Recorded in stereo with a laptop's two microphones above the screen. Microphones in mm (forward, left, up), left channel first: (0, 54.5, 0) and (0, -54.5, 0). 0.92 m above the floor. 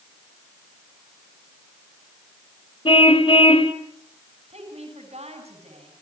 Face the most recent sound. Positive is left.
turn(degrees=-65)  # may be behind; listen again after turning